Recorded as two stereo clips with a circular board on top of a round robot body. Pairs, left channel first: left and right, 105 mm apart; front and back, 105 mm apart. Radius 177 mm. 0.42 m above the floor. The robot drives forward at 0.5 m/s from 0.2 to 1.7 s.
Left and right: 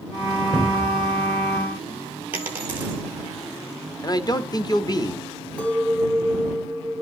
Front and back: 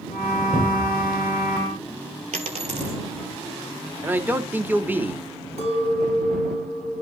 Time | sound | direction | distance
0.5 | a cupboard door | 170° left | 6 m
2.3 | a dropped coin | 165° right | 0.6 m
4.0 | a man speaking | 115° left | 1.1 m
5.6 | a clink | 170° left | 5.5 m